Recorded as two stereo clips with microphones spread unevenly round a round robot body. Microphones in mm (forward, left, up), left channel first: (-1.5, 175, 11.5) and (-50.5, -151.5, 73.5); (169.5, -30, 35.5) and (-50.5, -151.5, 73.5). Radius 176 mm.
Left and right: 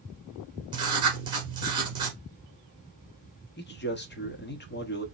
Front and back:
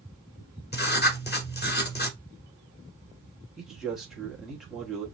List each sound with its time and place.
0.7 s writing: 25° right, 1.3 m
3.6 s a man speaking: 110° left, 1.1 m